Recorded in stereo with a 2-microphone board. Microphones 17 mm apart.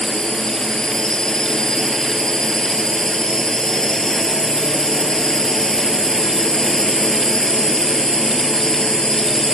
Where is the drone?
35° left (ahead or behind).